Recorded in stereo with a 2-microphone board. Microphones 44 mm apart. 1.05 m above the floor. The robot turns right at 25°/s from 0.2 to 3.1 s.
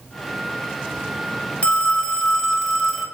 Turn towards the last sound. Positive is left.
turn(degrees=-175)